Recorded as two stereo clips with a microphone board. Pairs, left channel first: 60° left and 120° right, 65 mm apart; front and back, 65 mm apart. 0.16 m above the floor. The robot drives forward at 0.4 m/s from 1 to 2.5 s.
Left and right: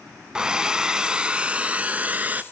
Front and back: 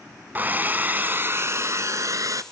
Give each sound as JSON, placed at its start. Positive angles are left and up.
{"t": 0.3, "sound": "a hair dryer", "azimuth_deg": 175, "distance_m": 0.6}